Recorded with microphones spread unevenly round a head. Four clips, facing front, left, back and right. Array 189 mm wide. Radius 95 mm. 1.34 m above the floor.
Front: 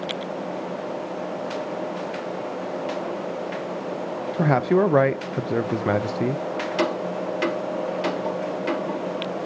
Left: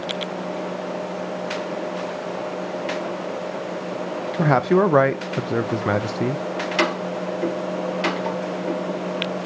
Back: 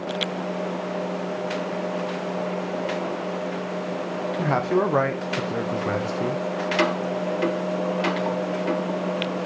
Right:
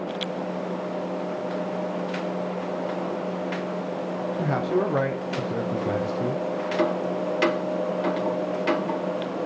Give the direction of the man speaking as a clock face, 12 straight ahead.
10 o'clock.